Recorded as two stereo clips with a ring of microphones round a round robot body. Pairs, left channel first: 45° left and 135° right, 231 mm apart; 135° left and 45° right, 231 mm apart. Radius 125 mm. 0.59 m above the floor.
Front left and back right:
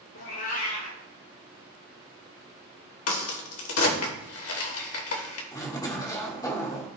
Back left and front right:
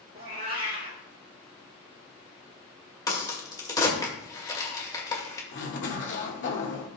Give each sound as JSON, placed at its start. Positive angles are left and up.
{"t": 0.1, "sound": "a cat meowing", "azimuth_deg": 10, "distance_m": 4.0}
{"t": 3.1, "sound": "a crack", "azimuth_deg": 60, "distance_m": 2.0}
{"t": 5.5, "sound": "a zipper", "azimuth_deg": 115, "distance_m": 2.0}